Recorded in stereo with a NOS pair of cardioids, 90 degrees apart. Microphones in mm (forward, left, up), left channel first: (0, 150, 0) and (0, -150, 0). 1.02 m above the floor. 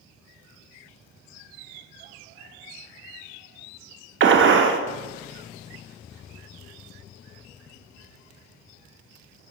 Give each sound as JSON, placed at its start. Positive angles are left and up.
{"t": 4.2, "sound": "a gunshot", "azimuth_deg": -40, "distance_m": 0.5}